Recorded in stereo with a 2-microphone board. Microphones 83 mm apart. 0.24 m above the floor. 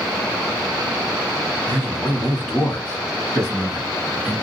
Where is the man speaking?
30° left (ahead or behind), 1.5 m; by 4.4 s 20° right (ahead or behind), 1.7 m.